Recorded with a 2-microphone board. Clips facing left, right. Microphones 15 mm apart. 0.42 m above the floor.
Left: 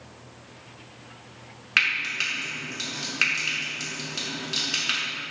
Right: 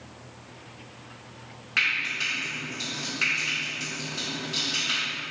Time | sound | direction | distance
1.8 | frying | 45° left (ahead or behind) | 0.7 m